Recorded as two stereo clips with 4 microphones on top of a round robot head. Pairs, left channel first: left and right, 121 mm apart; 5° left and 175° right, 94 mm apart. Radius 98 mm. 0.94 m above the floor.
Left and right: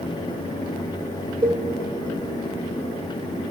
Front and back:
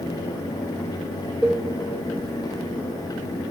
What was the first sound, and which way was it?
A cowbell, 95° right.